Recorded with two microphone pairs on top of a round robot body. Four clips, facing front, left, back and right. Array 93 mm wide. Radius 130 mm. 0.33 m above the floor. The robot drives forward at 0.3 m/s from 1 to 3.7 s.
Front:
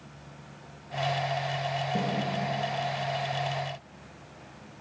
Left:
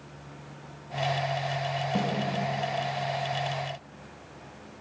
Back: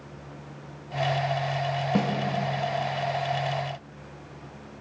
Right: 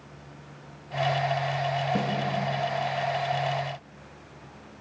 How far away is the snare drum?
About 0.6 m.